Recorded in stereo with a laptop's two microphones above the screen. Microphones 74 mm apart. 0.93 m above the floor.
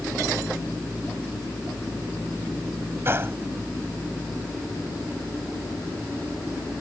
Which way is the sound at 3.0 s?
35° right (ahead or behind).